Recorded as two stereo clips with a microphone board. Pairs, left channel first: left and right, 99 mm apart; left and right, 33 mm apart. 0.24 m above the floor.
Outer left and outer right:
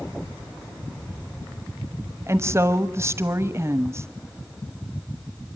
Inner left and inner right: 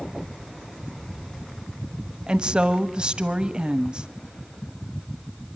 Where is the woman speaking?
30° right (ahead or behind), 1.0 m.